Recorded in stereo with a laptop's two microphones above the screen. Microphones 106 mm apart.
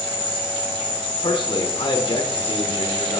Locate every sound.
0.0 s an insect: 40° right (ahead or behind), 1.6 m
1.2 s a man speaking: 50° left (ahead or behind), 1.2 m